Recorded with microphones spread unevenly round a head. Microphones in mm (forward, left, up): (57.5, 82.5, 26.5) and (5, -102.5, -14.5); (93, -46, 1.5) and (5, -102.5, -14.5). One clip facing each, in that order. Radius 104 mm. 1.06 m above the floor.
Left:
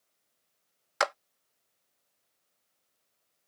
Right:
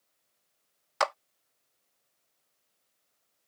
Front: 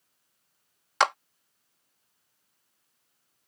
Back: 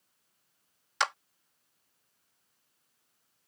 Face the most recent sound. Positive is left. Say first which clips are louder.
# even, front 7 dB
turn(degrees=0)